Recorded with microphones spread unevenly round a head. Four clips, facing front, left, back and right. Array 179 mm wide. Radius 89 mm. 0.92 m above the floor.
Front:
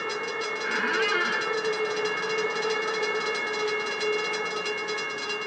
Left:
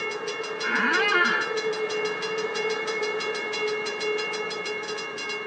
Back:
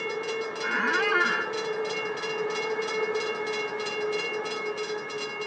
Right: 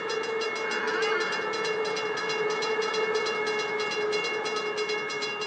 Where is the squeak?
95° left, 0.9 m.